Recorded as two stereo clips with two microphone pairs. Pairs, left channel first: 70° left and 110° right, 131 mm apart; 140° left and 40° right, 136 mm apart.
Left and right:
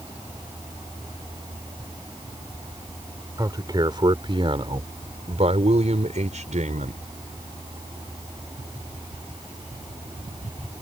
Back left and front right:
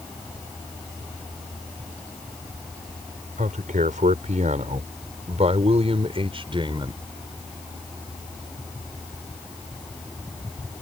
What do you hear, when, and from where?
3.4 s a man speaking: 50° right; by 7.0 s 95° right